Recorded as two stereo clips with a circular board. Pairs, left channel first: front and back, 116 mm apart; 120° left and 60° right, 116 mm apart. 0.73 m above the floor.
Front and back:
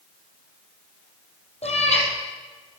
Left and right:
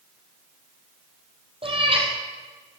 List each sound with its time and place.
1.6 s a cat meowing: 20° right, 3 m